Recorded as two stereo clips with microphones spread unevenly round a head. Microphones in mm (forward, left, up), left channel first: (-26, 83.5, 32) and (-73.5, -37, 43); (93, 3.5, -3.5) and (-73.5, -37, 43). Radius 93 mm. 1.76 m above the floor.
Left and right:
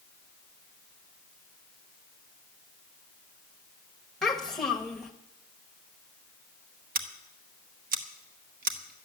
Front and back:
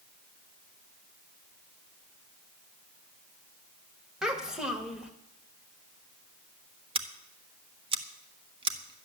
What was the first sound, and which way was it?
A child speaking, 160° left.